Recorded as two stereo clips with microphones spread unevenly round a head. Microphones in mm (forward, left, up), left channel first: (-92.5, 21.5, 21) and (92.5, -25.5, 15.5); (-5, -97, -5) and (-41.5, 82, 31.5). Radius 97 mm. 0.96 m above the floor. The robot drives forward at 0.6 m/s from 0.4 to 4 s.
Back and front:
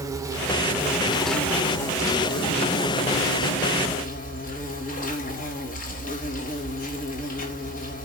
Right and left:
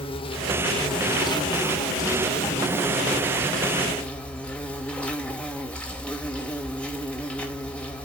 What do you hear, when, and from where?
0.0 s an insect: 75° right, 1.6 m; by 8.1 s 155° right, 2.5 m